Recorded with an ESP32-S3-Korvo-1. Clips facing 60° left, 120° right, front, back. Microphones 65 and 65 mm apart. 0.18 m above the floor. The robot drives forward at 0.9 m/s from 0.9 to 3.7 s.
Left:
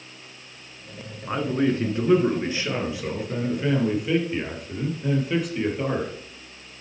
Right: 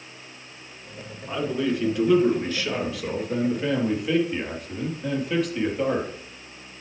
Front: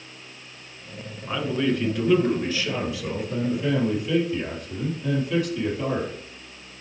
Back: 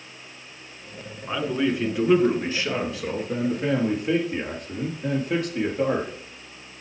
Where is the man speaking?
100° left, 2 m; by 6.1 s 145° left, 3 m.